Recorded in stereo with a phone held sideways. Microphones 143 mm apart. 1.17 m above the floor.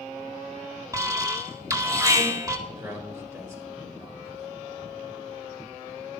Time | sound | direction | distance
0.9 | an alarm | 20° right (ahead or behind) | 1.9 m
2.7 | a man speaking | 20° right (ahead or behind) | 6 m